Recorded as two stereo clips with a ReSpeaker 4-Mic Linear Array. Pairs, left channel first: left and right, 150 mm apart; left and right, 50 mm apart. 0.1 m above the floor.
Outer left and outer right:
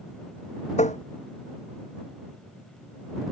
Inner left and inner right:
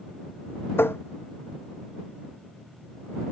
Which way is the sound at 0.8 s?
50° left (ahead or behind).